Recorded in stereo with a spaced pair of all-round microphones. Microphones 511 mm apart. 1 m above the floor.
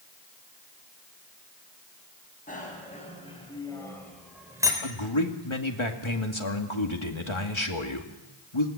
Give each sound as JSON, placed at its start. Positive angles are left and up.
{"t": 2.5, "sound": "a bicycle bell", "side_deg": 15, "distance_m": 6.0}
{"t": 4.8, "sound": "a man speaking", "side_deg": 65, "distance_m": 2.5}